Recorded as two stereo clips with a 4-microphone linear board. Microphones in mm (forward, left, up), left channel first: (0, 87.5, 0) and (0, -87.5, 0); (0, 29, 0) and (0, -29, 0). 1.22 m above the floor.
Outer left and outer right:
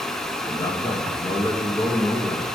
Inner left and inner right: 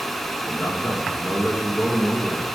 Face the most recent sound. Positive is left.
turn(degrees=20)  # may be behind; listen again after turning